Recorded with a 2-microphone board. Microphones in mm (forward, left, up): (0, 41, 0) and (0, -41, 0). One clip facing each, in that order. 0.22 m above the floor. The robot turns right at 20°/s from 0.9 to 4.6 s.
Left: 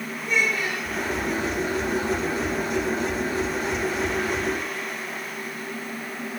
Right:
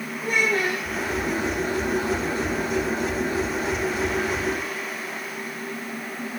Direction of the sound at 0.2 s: 50° right (ahead or behind).